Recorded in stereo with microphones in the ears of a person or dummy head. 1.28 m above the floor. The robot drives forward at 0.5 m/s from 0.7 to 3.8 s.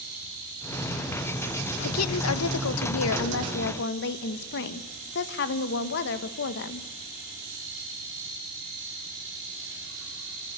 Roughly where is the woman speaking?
Left.